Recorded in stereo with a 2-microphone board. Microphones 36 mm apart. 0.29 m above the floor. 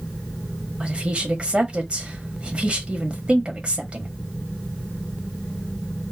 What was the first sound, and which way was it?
A woman speaking, 35° right (ahead or behind).